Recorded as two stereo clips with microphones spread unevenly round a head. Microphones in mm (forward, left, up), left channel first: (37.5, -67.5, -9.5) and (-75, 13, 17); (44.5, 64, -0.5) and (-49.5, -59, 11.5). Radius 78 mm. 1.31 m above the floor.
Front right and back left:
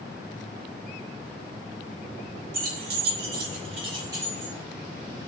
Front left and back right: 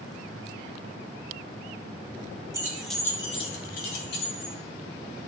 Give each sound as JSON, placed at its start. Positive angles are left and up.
{"t": 2.5, "sound": "keys jangling", "azimuth_deg": 160, "distance_m": 1.1}